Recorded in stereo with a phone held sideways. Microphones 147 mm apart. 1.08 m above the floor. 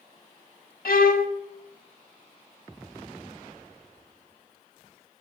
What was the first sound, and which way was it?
A violin, 75° left (ahead or behind).